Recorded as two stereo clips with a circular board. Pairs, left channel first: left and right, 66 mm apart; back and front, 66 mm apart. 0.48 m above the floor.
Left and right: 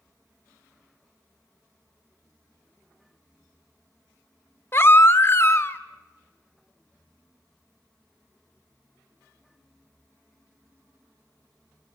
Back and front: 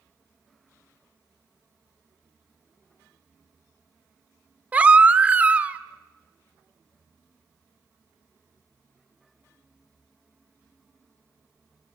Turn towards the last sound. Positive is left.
turn(degrees=60)